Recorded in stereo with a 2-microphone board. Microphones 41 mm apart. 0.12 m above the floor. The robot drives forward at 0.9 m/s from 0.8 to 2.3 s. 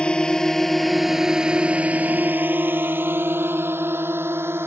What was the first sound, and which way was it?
A drone, 25° left (ahead or behind).